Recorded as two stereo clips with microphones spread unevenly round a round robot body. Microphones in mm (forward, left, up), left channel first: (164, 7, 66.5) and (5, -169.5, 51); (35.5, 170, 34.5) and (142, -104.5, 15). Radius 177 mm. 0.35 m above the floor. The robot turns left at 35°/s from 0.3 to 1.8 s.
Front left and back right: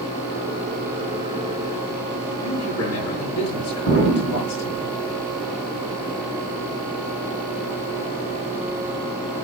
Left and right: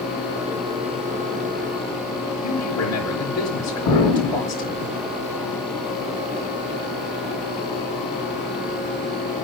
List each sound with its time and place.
2.4 s a man speaking: 80° left, 5.5 m
3.9 s an explosion: 95° left, 5 m